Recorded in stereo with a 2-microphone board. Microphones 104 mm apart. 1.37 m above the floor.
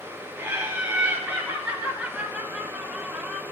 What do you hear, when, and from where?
0.4 s laughter: 20° right (ahead or behind), 4.5 m; by 3.4 s centre (ahead or behind), 1.5 m